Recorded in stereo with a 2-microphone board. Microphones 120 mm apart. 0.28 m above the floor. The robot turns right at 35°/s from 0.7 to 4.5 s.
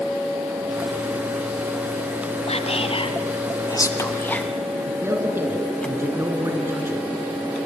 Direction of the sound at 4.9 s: 20° right (ahead or behind).